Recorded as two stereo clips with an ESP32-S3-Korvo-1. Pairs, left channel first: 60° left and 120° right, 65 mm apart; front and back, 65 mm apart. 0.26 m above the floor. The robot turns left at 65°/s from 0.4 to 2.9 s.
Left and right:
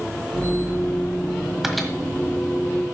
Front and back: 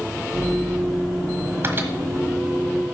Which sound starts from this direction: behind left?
A microwave, at 1.6 s.